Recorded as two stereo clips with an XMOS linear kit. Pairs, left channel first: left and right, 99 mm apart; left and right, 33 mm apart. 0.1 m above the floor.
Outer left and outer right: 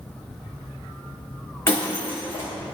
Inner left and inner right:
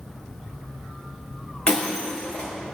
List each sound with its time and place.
1.7 s breaking glass: 25° left (ahead or behind), 4.5 m